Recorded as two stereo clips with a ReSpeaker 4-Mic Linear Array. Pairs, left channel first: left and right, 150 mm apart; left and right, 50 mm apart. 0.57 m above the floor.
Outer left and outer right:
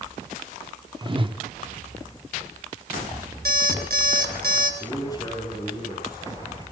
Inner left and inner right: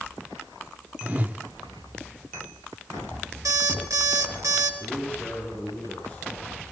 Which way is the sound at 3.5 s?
85° right.